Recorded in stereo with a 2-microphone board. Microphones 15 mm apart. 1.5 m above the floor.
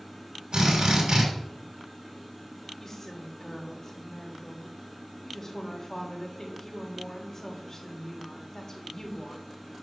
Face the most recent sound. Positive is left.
turn(degrees=25)  # may be behind; listen again after turning